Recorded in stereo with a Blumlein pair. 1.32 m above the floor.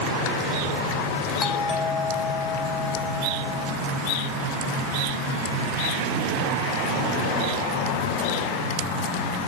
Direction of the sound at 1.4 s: 20° left.